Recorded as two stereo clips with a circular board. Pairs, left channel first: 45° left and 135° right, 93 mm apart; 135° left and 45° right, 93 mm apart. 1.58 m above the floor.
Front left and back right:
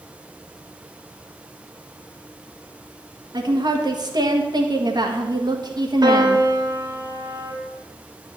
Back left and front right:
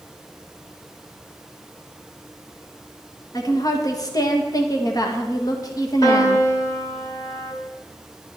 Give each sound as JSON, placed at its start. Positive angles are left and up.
{"t": 3.3, "sound": "a woman speaking", "azimuth_deg": -175, "distance_m": 1.5}
{"t": 6.0, "sound": "a piano", "azimuth_deg": 180, "distance_m": 3.5}